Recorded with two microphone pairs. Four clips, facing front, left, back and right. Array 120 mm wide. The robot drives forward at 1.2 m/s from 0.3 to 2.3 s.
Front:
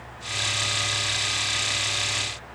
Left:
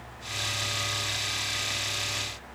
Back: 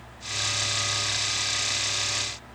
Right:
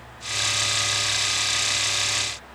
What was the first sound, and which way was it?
Only background noise.